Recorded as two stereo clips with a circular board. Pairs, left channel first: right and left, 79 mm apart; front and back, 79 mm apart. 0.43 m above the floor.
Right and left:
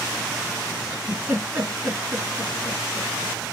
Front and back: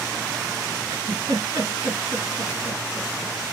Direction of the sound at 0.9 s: 160° left.